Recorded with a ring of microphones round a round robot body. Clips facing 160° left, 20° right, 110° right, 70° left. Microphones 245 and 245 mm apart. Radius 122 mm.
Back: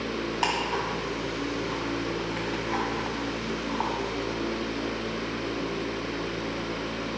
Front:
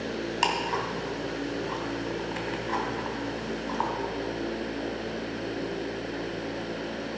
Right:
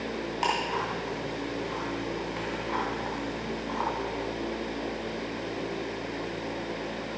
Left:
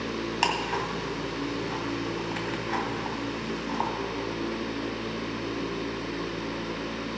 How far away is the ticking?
About 2 m.